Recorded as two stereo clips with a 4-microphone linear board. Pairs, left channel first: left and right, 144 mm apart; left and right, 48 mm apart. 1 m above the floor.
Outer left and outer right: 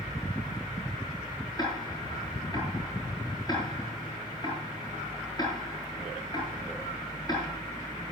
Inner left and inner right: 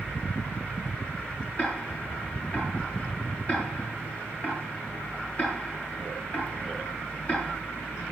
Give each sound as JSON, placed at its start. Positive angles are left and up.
{"t": 1.6, "sound": "ticking", "side_deg": 25, "distance_m": 9.5}